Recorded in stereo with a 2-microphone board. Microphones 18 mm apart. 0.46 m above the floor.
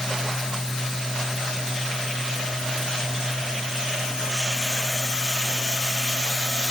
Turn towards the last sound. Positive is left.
No sound to turn to.